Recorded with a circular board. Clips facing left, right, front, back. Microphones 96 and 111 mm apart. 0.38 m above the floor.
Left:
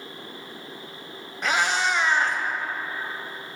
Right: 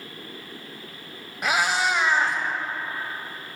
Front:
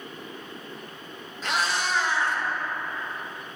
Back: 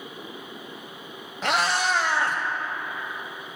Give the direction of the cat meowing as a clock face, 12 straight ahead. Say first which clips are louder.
Right 1 dB, back 4 dB; 6 o'clock.